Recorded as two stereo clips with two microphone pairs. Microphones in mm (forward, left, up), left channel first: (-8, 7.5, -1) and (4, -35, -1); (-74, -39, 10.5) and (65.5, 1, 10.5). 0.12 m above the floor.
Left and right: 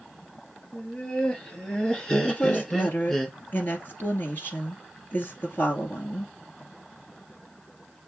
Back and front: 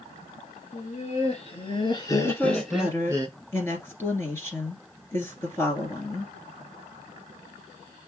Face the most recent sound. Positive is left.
turn(degrees=130)